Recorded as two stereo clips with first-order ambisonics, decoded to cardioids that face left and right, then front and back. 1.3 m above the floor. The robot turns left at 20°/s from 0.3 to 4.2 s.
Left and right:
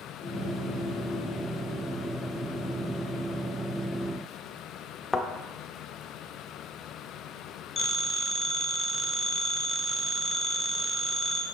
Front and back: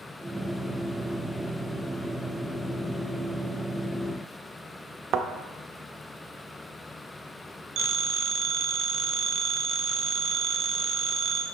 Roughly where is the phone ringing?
Behind left.